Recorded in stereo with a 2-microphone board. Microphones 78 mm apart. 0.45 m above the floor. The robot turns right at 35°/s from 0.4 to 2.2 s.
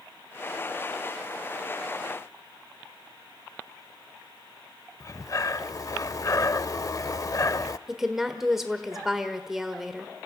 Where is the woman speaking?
5° right (ahead or behind), 1.3 m.